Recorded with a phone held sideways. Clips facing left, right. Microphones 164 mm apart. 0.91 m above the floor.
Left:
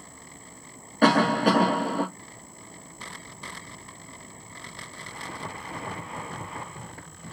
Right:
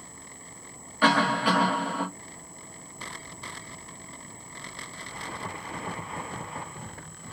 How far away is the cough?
About 0.9 m.